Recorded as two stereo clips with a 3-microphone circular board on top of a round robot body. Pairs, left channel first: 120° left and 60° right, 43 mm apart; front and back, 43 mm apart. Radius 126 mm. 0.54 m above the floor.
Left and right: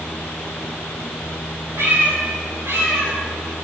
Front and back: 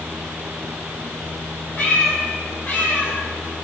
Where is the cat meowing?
50° right, 9 m; by 3.2 s 45° right, 7 m.